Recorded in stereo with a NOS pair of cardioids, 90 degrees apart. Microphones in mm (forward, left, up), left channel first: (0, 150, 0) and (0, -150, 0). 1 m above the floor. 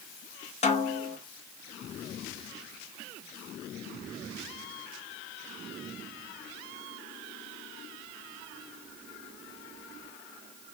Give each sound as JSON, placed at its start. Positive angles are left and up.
{"t": 0.6, "sound": "a snare drum", "azimuth_deg": 25, "distance_m": 1.0}